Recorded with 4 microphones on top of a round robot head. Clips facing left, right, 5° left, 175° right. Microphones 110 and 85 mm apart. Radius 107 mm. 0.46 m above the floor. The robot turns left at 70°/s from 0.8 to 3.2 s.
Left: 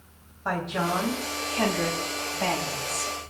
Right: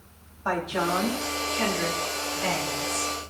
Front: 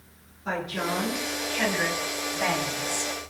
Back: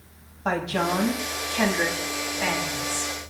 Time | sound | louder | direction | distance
0.5 | a woman speaking | right 1 dB, back 5 dB | 175° right | 3.5 m